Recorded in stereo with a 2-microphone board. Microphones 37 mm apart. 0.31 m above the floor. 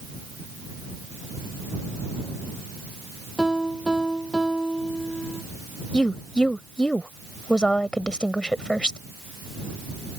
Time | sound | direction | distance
3.4 | a piano | 10° right (ahead or behind) | ?
5.9 | a woman speaking | 25° left (ahead or behind) | ?